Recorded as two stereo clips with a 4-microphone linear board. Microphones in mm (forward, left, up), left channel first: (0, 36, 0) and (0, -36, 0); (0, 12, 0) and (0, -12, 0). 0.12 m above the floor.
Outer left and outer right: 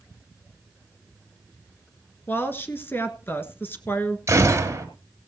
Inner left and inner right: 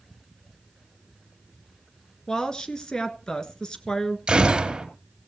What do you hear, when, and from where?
2.3 s a woman speaking: 30° left (ahead or behind), 1.4 m
4.3 s a gunshot: 40° right (ahead or behind), 2.5 m